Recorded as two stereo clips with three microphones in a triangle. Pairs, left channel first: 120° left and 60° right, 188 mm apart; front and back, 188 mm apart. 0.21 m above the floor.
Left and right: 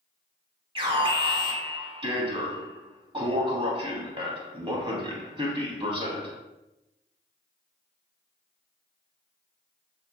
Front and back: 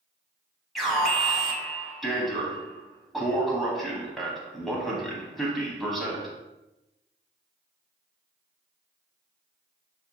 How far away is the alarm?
About 0.8 m.